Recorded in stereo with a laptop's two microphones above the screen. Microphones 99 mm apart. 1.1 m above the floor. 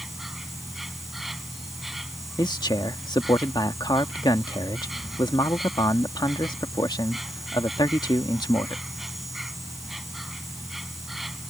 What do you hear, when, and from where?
0.0 s an insect: centre (ahead or behind)
2.4 s a man speaking: 45° left (ahead or behind)